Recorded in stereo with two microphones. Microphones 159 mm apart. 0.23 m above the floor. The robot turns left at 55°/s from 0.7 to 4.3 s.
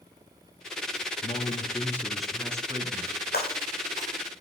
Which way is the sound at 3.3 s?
85° left.